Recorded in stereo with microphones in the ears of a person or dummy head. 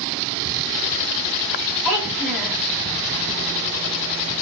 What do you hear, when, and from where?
1.9 s a child speaking: 5° right (ahead or behind), 1.4 m